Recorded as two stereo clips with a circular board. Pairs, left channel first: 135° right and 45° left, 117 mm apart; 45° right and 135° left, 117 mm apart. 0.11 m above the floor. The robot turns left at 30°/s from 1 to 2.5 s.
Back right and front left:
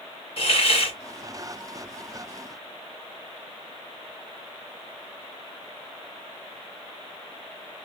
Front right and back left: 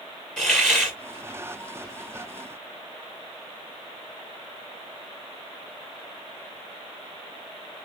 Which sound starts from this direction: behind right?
A hiss, at 0.4 s.